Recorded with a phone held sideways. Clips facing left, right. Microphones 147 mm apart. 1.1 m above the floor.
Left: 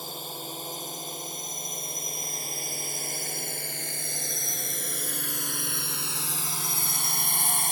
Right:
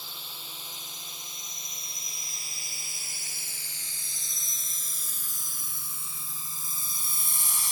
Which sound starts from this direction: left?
A drone, at 0.0 s.